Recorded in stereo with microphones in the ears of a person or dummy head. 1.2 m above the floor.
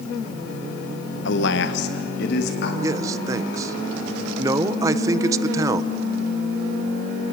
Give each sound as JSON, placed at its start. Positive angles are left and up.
{"t": 1.2, "sound": "a man speaking", "side_deg": 60, "distance_m": 1.2}
{"t": 2.8, "sound": "a man speaking", "side_deg": -20, "distance_m": 0.9}